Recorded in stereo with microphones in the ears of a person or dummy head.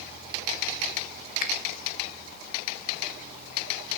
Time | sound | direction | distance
1.4 | a finger snap | 45° left (ahead or behind) | 0.7 m